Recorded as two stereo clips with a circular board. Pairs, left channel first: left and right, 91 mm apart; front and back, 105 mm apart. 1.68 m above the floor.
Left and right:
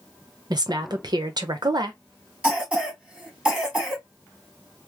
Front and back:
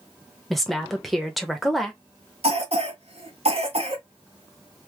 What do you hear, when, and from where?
0.5 s a woman speaking: 90° right, 0.9 m
2.4 s a cough: 165° right, 1.8 m